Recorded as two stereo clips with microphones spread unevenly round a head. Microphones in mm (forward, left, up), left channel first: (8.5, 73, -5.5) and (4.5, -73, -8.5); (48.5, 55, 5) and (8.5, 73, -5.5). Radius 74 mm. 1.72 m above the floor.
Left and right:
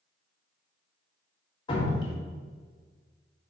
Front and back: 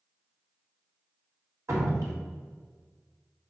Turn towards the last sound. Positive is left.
turn(degrees=145)